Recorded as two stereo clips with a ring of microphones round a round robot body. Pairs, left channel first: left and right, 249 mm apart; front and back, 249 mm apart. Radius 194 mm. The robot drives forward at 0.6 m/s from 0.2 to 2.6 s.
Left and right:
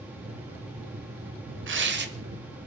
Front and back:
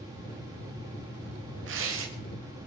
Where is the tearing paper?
130° right, 1.4 m; by 2.1 s 140° right, 1.5 m.